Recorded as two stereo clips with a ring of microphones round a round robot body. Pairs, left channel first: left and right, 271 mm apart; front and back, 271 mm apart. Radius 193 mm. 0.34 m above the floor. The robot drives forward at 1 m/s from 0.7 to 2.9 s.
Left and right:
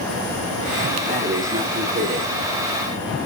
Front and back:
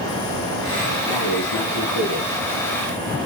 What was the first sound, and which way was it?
Breathing, 25° right.